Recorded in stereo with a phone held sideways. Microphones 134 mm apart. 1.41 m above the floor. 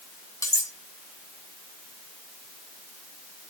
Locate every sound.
0.4 s cutlery clinking: 25° left (ahead or behind), 1.5 m